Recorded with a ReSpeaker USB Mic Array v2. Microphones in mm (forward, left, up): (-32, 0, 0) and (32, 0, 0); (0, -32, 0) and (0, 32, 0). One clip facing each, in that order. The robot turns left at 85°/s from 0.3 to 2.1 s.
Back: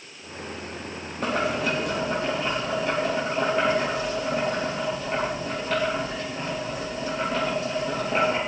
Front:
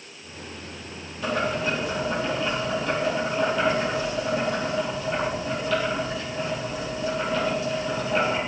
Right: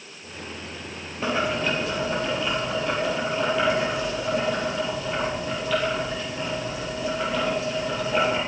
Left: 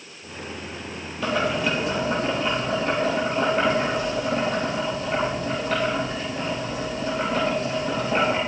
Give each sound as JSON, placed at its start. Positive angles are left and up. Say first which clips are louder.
{"t": 1.2, "sound": "boiling", "louder": "even, left 1 dB", "azimuth_deg": -145, "distance_m": 4.0}